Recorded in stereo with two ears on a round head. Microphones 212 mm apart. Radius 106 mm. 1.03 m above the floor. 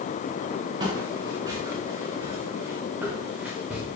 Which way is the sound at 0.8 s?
20° right (ahead or behind).